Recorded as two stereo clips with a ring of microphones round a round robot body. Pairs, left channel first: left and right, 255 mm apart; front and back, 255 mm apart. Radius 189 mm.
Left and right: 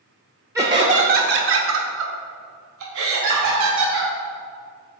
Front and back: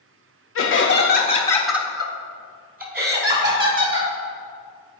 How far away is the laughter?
About 1.0 m.